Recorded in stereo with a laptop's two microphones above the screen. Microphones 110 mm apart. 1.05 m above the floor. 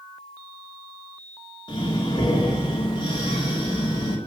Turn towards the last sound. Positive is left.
turn(degrees=45)  # may be behind; listen again after turning